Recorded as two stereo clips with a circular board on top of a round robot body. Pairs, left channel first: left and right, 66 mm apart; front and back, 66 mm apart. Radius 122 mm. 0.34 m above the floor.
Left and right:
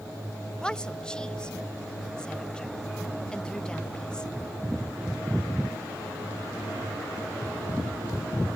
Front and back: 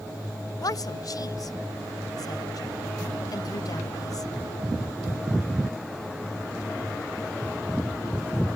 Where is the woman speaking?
10° left.